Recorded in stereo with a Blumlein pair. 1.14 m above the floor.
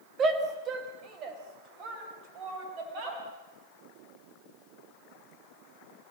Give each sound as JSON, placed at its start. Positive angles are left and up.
{"t": 0.2, "sound": "a shout", "azimuth_deg": -25, "distance_m": 3.0}